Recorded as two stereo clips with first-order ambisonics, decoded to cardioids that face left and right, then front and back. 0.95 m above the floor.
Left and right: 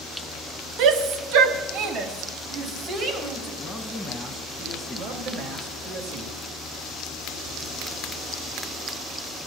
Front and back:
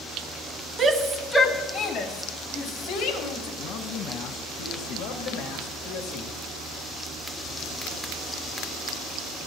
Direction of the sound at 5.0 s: 40° right.